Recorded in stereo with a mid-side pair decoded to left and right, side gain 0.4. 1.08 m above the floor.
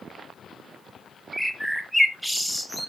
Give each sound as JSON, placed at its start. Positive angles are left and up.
{"t": 1.3, "sound": "a bird", "azimuth_deg": -5, "distance_m": 1.5}